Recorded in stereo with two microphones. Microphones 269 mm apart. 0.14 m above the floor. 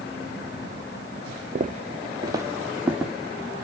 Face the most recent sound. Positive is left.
turn(degrees=0)  # may be behind; listen again after turning